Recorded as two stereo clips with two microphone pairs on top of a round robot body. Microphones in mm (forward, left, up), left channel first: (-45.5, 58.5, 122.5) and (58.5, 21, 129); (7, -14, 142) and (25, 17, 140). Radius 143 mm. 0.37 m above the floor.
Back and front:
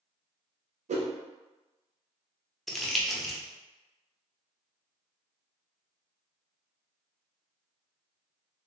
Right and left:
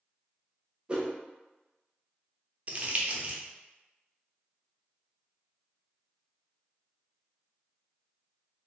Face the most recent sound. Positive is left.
turn(degrees=75)